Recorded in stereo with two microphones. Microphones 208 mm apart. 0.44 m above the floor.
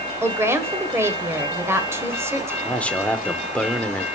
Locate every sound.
0.2 s a woman speaking: 10° right (ahead or behind), 1.5 m
2.6 s a man speaking: 5° left (ahead or behind), 0.8 m